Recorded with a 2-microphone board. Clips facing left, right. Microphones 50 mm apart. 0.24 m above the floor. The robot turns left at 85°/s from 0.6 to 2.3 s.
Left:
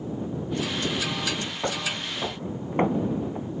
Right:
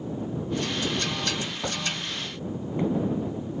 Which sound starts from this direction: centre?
Footsteps, at 1.6 s.